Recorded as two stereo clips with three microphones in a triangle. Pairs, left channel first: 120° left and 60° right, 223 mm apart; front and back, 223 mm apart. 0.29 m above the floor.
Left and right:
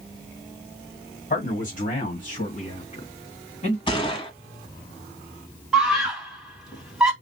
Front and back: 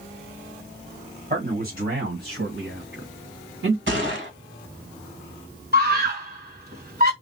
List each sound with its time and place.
1.3 s a man speaking: 150° left, 1.8 m; by 3.8 s 175° left, 3 m
3.9 s a gunshot: 175° right, 1.3 m
5.7 s a scream: 150° right, 2 m